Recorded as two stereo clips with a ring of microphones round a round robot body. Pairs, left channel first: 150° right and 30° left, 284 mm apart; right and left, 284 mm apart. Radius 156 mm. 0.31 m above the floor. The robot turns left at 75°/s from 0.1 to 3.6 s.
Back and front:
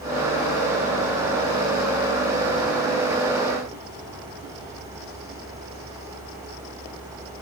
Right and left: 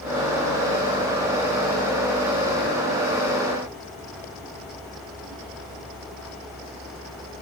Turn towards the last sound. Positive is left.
No sound to turn to.